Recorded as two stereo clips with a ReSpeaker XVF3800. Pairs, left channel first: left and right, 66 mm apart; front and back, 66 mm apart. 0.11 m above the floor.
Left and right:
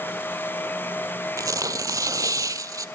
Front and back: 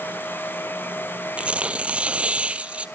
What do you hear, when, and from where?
1.4 s tearing paper: 110° right, 0.5 m